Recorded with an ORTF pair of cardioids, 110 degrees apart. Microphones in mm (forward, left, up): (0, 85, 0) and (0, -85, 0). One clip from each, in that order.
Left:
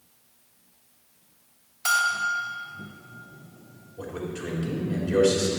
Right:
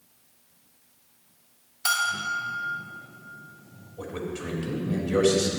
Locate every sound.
1.9 s a bell: straight ahead, 4 m
4.0 s a man speaking: straight ahead, 3.5 m